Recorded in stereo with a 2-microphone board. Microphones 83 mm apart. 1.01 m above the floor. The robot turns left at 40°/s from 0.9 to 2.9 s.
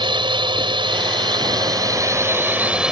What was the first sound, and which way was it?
A drone, 90° right.